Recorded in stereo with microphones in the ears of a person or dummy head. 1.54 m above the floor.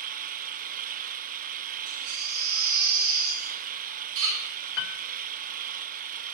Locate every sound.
0.0 s an engine running: 45° right (ahead or behind), 0.9 m
1.9 s a baby crying: 80° right, 4 m
4.8 s a piano: 70° left (ahead or behind), 0.6 m